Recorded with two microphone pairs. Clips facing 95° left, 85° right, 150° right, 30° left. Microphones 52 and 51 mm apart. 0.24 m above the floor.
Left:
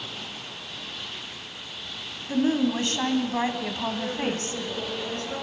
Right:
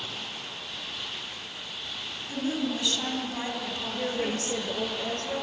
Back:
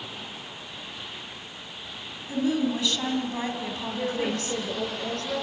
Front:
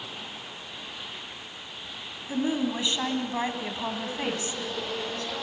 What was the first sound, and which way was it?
A woman speaking, 85° left.